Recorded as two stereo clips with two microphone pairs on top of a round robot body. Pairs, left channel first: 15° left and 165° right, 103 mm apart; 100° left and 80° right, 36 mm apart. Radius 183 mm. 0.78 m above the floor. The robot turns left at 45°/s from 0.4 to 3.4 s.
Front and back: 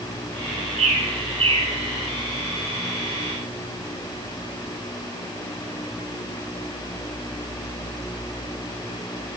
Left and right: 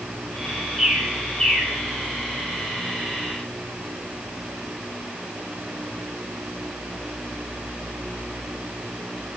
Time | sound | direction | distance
0.8 | a bird | 165° right | 4 m